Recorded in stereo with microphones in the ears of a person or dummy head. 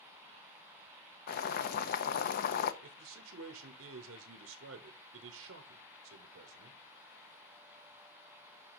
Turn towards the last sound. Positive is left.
turn(degrees=-70)  # may be behind; listen again after turning